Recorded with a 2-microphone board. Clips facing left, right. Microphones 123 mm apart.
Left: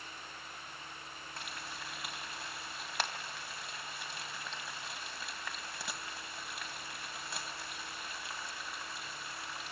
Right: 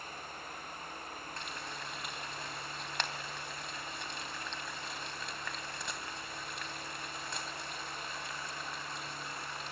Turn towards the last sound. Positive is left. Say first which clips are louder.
# left 1 dB
turn(degrees=5)  # may be behind; listen again after turning